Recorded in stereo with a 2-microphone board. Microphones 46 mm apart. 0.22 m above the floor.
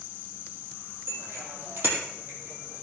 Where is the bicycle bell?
60° right (ahead or behind), 5 m; by 2.8 s 45° right (ahead or behind), 6 m.